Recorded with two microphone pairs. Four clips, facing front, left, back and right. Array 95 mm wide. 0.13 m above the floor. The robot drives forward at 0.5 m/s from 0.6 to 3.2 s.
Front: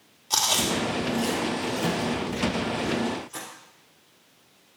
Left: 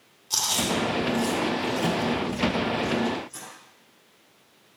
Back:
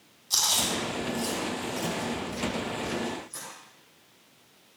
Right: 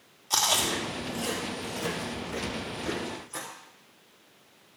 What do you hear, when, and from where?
0.3 s chewing: 25° right, 4.5 m; by 3.5 s 35° right, 3.5 m